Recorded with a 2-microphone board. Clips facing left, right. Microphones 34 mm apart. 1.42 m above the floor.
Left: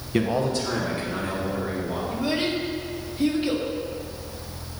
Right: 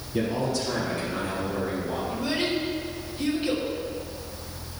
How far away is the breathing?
No breathing in this recording.